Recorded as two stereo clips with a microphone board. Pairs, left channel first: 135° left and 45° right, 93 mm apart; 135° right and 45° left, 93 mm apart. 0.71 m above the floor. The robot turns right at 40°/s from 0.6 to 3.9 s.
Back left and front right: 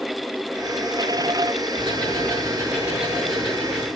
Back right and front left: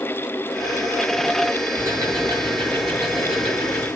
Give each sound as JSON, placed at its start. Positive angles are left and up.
{"t": 1.8, "sound": "ticking", "azimuth_deg": -20, "distance_m": 7.0}